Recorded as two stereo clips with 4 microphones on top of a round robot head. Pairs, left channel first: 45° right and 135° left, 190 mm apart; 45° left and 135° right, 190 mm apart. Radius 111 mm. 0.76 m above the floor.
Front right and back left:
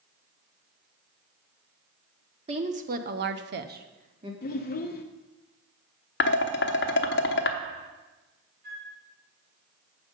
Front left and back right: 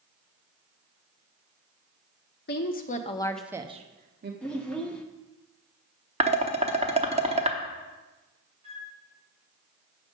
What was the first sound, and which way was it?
A woman speaking, 75° left.